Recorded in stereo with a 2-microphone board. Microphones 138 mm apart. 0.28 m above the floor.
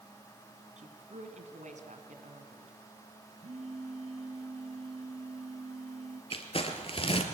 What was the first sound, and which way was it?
A woman speaking, 65° right (ahead or behind).